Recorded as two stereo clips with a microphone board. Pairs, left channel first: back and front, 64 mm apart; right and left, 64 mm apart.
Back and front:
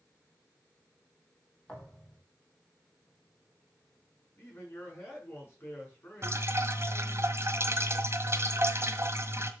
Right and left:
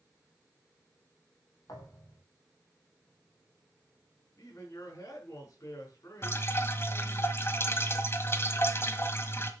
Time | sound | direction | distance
1.7 | a thud | 105° right | 4.5 m
4.4 | a man speaking | 125° right | 6 m
6.2 | dripping | 40° right | 1.6 m